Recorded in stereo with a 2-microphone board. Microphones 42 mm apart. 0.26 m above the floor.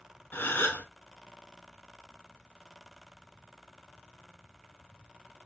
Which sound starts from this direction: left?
A gasp, at 0.3 s.